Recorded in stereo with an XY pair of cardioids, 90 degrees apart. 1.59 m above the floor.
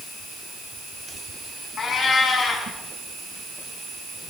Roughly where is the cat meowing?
Ahead left.